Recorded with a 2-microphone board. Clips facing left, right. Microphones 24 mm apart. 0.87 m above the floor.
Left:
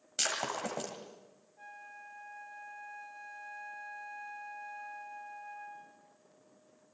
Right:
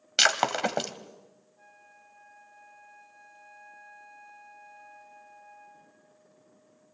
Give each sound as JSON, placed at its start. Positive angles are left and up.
{"t": 0.2, "sound": "breaking glass", "side_deg": -60, "distance_m": 1.7}
{"t": 1.6, "sound": "a flute", "side_deg": 25, "distance_m": 1.1}